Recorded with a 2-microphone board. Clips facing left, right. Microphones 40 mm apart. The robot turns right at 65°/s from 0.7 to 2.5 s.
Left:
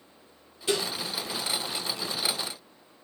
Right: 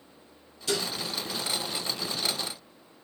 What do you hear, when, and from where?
0.7 s dishes clattering: 25° left (ahead or behind), 1.8 m; by 0.9 s 35° left (ahead or behind), 1.8 m